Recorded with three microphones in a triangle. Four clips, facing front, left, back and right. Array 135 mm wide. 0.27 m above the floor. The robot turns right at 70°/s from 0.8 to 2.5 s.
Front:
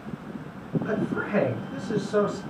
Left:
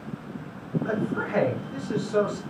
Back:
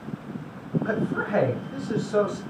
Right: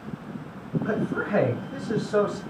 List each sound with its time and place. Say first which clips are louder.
0.8 s a man speaking: right 2 dB, back 1 dB; straight behind, 1.2 m; by 2.4 s 70° right, 1.2 m